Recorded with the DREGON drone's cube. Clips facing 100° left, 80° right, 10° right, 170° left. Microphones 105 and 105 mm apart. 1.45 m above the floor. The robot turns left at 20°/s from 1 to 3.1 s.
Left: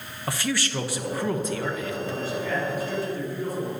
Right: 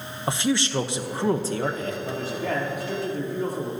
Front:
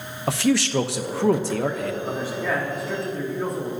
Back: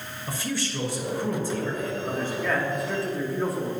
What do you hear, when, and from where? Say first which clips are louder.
0.3 s a man speaking: right 4 dB, front 10 dB; 10° right, 1.0 m; by 1.9 s 30° right, 1.0 m
2.0 s a man speaking: right 1 dB, front 1 dB; 85° right, 3.5 m; by 3.7 s 105° right, 3.5 m